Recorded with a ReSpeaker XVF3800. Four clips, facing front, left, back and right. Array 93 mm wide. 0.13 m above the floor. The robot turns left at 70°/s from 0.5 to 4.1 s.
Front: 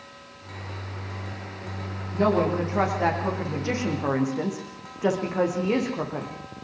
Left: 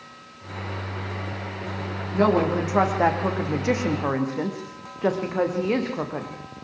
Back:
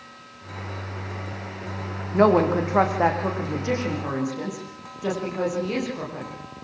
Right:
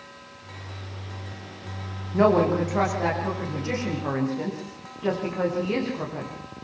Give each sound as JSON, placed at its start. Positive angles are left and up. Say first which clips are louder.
{"t": 2.1, "sound": "a woman speaking", "louder": "right 1 dB, back 5 dB", "azimuth_deg": -160, "distance_m": 7.5}